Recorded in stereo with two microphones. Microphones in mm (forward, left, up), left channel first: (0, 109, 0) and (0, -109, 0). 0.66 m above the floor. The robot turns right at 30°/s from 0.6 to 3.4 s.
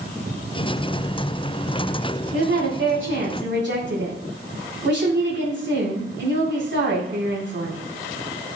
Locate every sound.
2.3 s a woman speaking: 90° right, 6.5 m; by 7.8 s 55° right, 6.5 m